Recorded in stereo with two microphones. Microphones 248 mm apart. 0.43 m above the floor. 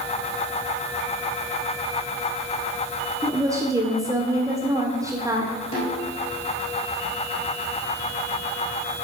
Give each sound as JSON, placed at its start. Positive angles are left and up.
{"t": 3.2, "sound": "a woman speaking", "side_deg": -15, "distance_m": 1.5}
{"t": 5.7, "sound": "a snare drum", "side_deg": 25, "distance_m": 5.0}